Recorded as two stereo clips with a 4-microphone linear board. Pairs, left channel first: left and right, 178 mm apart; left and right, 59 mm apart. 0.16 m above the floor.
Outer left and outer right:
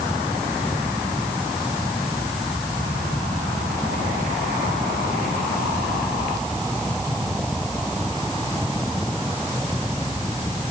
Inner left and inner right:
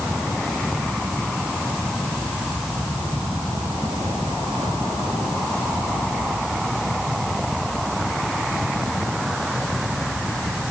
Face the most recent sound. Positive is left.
No sound to turn to.